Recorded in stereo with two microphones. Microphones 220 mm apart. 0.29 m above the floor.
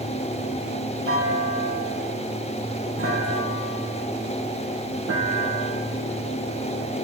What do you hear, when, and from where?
1.1 s a clunk: 70° right (ahead or behind), 3.5 m